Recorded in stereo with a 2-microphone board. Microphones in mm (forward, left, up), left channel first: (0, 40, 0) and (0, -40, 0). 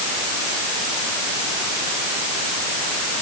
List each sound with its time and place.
Only background noise.